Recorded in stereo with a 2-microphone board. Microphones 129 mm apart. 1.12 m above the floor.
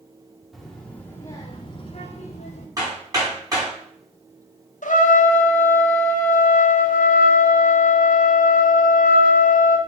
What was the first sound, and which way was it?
A child speaking, centre (ahead or behind).